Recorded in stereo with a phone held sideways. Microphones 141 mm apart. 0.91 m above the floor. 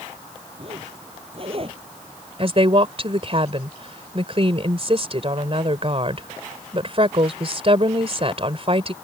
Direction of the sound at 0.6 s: 45° right (ahead or behind).